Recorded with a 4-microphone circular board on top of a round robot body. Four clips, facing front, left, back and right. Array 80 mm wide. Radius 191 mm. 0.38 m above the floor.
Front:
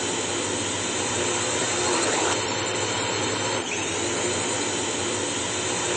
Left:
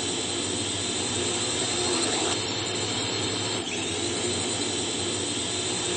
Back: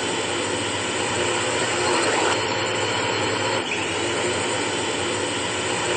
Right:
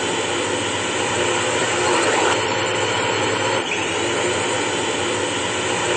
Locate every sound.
0.0 s a drone: 105° right